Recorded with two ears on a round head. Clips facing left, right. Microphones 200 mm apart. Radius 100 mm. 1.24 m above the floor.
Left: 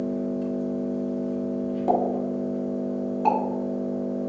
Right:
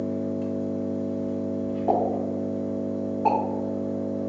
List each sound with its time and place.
0.0 s an engine running: centre (ahead or behind), 0.9 m
1.9 s a pop: 50° left (ahead or behind), 1.0 m